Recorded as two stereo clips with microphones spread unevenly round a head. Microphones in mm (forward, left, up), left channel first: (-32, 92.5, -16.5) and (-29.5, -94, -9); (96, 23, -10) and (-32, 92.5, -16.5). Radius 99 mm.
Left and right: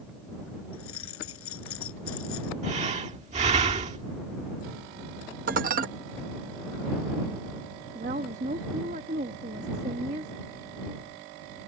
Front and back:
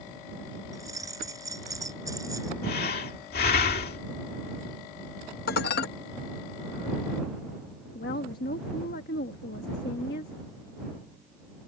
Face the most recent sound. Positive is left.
turn(degrees=-35)